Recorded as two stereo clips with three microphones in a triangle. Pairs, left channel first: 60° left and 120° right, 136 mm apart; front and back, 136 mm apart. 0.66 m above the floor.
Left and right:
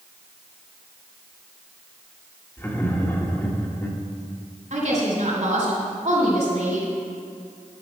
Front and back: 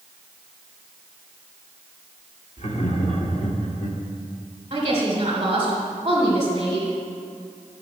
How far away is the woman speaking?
About 2.5 m.